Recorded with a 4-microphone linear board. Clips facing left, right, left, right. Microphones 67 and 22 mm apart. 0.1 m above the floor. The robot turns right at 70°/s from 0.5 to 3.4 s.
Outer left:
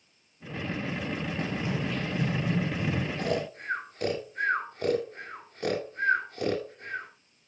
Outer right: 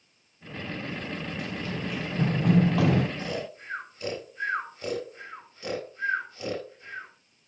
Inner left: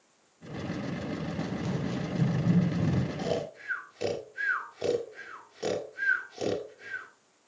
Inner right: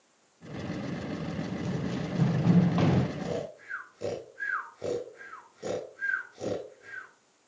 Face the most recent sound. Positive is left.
turn(degrees=45)  # may be behind; listen again after turning